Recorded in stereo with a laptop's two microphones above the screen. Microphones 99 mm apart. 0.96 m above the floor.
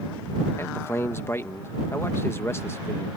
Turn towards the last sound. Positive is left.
turn(degrees=25)  # may be behind; listen again after turning